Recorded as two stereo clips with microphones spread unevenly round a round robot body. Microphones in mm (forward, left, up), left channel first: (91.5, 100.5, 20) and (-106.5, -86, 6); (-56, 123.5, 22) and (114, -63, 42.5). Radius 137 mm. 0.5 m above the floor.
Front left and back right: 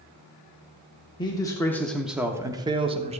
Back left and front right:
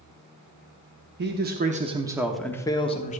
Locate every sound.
1.2 s a man speaking: 25° right, 1.2 m; by 3.2 s 170° left, 1.3 m